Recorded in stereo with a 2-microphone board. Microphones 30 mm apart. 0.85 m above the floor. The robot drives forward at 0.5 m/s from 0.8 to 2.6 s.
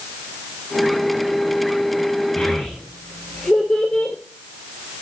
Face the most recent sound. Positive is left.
turn(degrees=35)  # may be behind; listen again after turning